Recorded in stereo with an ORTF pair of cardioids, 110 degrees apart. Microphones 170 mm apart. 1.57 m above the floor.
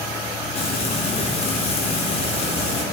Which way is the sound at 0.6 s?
35° left.